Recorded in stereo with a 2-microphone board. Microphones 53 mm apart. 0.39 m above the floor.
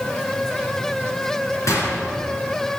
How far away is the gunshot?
About 3.5 m.